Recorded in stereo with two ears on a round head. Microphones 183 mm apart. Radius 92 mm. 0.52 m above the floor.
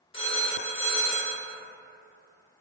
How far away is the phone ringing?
About 0.6 m.